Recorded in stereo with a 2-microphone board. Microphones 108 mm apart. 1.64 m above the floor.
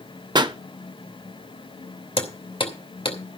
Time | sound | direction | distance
0.3 | a pop | 45° right (ahead or behind) | 0.7 m
2.2 | hammering | 60° left (ahead or behind) | 2.5 m